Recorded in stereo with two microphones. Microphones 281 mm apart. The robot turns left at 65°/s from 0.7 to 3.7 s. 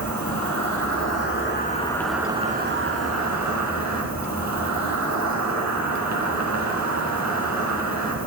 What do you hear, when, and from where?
0.0 s an insect: 90° left, 3.5 m; by 8.3 s 105° right, 3.5 m